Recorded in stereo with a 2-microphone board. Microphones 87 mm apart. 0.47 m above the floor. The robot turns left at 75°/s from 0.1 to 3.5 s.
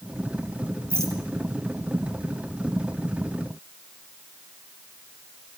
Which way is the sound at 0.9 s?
25° right (ahead or behind).